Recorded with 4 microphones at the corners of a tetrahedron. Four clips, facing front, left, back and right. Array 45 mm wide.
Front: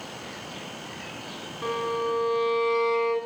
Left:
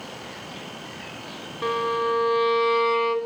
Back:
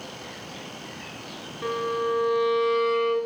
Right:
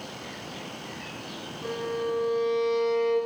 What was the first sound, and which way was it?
A violin, 80° left.